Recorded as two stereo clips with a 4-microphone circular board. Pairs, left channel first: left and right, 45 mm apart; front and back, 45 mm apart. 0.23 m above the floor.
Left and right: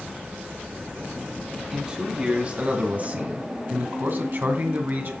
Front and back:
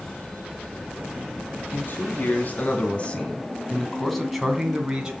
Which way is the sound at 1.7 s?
20° right.